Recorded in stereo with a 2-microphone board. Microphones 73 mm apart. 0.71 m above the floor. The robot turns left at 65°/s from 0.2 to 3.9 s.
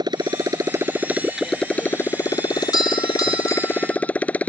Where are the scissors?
No scissors in this recording.